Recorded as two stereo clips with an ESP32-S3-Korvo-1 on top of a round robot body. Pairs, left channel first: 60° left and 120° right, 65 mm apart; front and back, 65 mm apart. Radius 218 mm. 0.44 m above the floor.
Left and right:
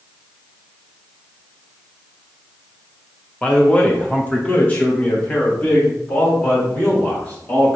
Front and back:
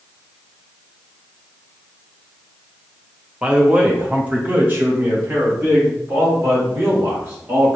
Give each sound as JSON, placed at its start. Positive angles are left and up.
{"t": 3.4, "sound": "a man speaking", "azimuth_deg": 115, "distance_m": 1.2}